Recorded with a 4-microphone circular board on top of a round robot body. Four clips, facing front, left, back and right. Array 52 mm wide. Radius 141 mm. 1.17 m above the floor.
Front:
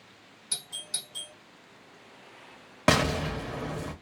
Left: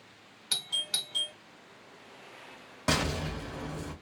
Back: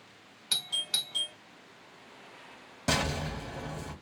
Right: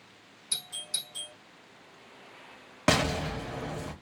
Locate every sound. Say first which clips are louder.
0.5 s a doorbell: left 6 dB, back 7 dB; 135° left, 1.4 m
2.9 s an explosion: right 4 dB, front 6 dB; 30° right, 1.1 m